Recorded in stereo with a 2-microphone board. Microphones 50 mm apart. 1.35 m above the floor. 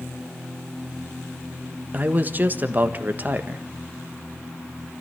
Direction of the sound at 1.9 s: 35° right (ahead or behind).